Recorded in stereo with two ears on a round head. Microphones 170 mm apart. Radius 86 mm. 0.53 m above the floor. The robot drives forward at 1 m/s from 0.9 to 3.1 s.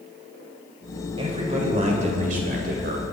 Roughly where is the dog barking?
No dog barking in this recording.